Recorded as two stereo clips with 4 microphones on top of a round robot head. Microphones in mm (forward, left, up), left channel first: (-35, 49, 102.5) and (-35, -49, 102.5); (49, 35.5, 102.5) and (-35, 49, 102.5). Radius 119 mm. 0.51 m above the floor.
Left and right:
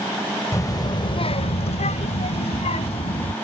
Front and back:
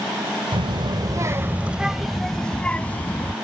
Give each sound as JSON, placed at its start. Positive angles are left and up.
{"t": 0.5, "sound": "a child speaking", "azimuth_deg": 150}